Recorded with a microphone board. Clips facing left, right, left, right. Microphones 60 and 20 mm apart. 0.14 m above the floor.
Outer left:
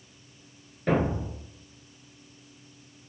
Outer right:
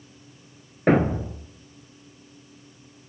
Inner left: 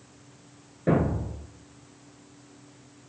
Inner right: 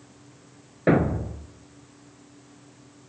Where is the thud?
50° right (ahead or behind), 0.8 m.